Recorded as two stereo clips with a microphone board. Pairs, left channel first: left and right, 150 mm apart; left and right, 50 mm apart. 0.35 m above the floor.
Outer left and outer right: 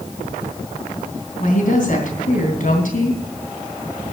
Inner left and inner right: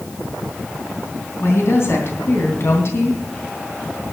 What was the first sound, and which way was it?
A woman speaking, 60° left (ahead or behind).